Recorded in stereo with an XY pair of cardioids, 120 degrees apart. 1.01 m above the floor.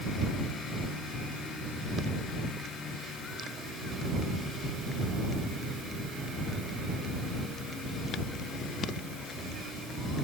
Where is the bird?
No bird in this recording.